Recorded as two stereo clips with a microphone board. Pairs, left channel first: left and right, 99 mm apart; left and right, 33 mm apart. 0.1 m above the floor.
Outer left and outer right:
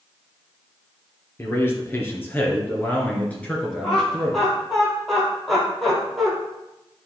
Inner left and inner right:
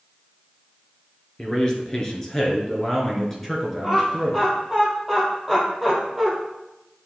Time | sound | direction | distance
1.4 | a man speaking | 25° left (ahead or behind) | 1.8 m
3.8 | laughter | centre (ahead or behind) | 3.5 m